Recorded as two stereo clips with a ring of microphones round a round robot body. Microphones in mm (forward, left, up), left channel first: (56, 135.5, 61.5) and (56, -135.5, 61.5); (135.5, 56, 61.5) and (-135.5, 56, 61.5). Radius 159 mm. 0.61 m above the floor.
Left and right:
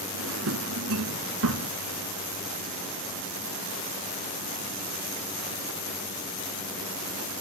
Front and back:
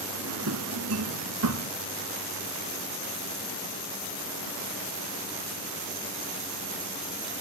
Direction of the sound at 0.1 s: 135° right.